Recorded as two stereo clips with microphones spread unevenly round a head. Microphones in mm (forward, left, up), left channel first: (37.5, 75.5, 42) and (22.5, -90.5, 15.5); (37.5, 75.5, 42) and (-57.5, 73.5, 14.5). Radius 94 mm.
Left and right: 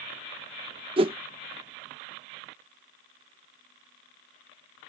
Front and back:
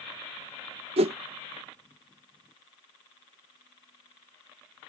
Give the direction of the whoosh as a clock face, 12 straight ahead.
5 o'clock.